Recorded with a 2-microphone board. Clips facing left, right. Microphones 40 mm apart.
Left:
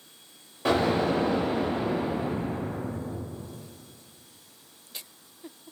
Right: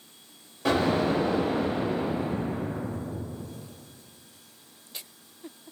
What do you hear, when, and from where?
0.7 s an explosion: 10° left (ahead or behind), 0.9 m